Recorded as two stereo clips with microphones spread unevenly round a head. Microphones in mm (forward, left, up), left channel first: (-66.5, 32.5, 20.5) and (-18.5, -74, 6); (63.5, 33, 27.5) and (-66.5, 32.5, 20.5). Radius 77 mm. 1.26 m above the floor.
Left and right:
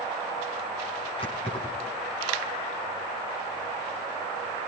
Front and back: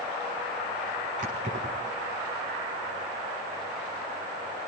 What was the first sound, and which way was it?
Keys jangling, 155° left.